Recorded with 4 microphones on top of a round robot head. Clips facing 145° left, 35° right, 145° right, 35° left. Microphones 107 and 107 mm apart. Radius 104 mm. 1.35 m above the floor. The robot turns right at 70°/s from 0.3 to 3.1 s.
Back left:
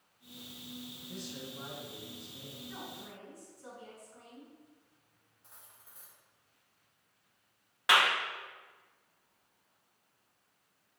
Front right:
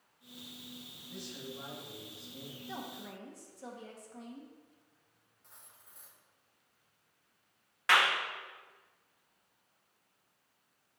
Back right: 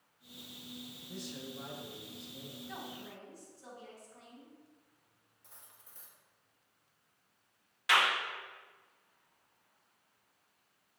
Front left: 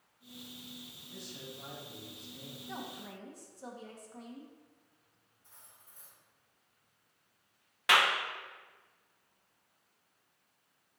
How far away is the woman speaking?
About 1.7 m.